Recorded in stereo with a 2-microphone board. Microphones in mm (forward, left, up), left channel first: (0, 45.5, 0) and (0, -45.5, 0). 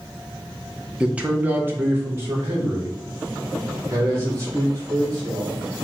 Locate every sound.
1.0 s a man speaking: 10° right (ahead or behind), 0.7 m; by 5.5 s 35° right (ahead or behind), 3.5 m